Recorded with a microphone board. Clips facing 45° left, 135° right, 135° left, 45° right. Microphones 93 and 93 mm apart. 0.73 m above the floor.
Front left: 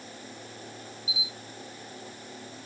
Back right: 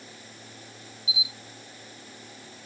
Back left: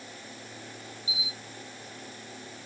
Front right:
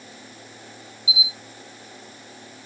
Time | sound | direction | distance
1.1 | a camera shutter | 125° right | 3 m